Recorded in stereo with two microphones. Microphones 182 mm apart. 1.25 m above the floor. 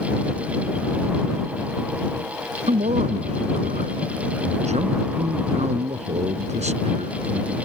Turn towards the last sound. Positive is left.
turn(degrees=-35)  # may be behind; listen again after turning